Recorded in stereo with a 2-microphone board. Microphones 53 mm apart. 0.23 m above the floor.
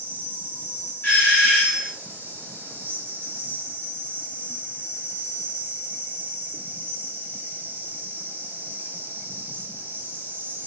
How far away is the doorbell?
About 1.8 m.